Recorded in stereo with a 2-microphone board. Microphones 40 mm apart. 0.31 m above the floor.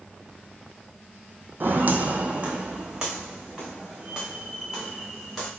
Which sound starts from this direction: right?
Footsteps, at 1.6 s.